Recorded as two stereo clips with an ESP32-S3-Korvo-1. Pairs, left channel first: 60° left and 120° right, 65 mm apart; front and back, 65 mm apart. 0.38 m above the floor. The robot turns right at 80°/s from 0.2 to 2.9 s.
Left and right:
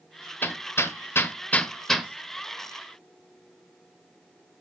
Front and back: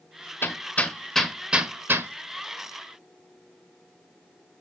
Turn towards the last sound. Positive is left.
turn(degrees=-140)